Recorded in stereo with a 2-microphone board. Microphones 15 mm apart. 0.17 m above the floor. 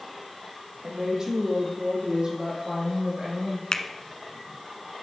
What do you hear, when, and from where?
0.8 s a woman speaking: 40° right (ahead or behind), 6.5 m; by 3.6 s 50° right (ahead or behind), 7.5 m
3.7 s a finger snap: 45° left (ahead or behind), 1.3 m